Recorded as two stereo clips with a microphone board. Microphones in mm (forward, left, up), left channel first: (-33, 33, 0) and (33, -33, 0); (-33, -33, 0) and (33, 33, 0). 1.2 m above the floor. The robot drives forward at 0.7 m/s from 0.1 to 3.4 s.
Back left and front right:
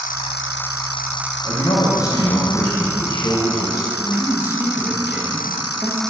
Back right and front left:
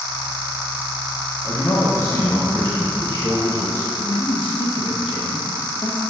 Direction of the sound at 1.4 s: 160° left.